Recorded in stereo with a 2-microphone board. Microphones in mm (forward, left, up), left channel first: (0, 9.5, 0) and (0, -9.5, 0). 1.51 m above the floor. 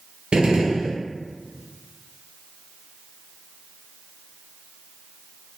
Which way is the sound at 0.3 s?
60° right (ahead or behind).